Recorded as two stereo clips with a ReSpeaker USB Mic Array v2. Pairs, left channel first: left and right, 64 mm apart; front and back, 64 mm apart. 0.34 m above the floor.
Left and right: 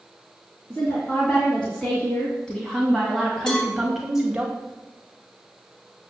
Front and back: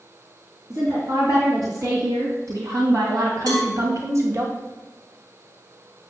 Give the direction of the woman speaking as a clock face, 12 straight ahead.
7 o'clock.